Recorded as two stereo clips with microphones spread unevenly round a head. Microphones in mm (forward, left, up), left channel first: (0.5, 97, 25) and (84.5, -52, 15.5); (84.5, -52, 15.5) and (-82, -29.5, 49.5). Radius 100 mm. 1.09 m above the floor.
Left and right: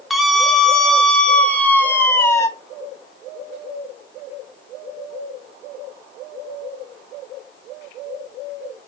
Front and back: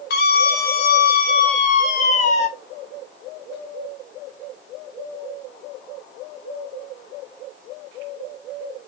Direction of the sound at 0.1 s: 30° left.